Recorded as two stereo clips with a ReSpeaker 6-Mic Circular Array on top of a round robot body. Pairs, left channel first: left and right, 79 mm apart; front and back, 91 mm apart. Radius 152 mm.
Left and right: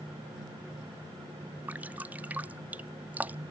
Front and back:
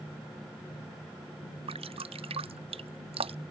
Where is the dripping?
160° right.